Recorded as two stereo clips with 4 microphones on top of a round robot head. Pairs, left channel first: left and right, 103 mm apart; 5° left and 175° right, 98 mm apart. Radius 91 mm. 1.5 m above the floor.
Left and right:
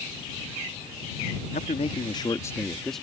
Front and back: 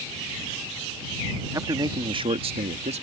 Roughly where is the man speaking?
Behind left.